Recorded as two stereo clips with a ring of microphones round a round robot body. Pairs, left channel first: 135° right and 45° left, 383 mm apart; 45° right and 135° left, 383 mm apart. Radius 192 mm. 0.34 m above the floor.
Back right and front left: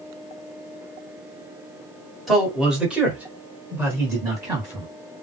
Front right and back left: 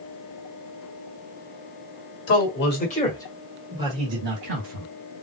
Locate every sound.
2.3 s a man speaking: 45° right, 1.4 m; by 4.9 s 125° left, 1.5 m